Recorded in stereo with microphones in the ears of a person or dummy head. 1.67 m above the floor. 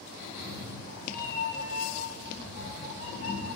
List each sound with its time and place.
0.2 s a cat meowing: 80° left, 4 m; by 3.5 s 85° left, 8 m